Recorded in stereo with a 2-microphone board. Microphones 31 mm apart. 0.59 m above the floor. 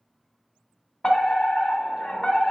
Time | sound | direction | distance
1.0 | a fire alarm | 20° left (ahead or behind) | 1.6 m